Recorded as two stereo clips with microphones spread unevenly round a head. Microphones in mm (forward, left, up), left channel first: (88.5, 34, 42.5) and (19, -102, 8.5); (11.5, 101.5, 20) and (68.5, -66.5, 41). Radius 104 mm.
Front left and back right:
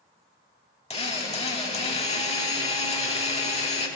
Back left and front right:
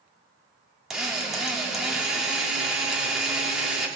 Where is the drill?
15° left, 3.5 m.